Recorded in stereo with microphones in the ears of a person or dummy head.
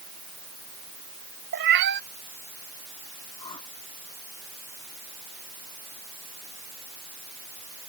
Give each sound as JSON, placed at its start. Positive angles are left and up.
{"t": 1.5, "sound": "a cat meowing", "side_deg": -55}
{"t": 3.4, "sound": "a whoosh", "side_deg": 15}